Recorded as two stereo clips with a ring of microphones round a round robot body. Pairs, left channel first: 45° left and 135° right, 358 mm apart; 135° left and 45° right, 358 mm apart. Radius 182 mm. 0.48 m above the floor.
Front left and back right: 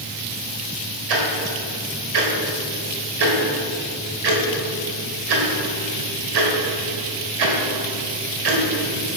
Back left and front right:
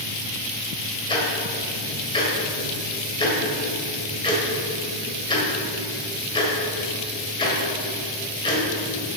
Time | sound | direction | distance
1.1 | ticking | 150° right | 1.7 m